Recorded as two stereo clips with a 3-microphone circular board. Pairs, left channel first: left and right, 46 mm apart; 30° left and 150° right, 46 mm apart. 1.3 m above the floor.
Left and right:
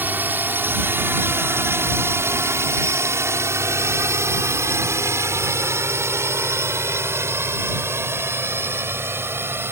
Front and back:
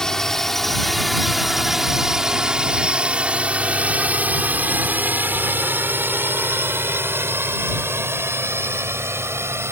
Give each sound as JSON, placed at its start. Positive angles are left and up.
{"t": 0.0, "sound": "a drone", "azimuth_deg": -45}